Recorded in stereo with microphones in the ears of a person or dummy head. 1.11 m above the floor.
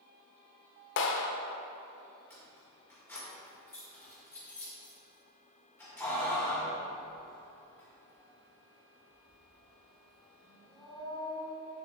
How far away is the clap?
About 0.7 m.